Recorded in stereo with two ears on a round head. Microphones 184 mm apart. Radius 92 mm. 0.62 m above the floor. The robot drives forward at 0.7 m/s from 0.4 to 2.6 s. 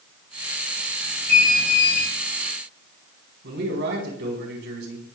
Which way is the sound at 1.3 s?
45° left (ahead or behind).